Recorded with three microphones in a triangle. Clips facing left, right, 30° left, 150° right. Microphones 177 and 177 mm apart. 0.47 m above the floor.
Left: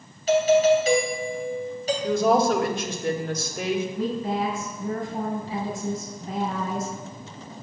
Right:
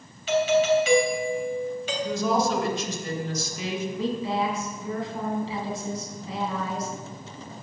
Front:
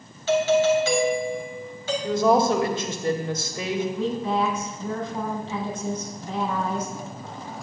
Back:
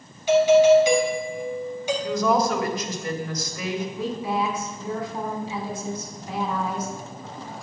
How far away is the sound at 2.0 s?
About 2 m.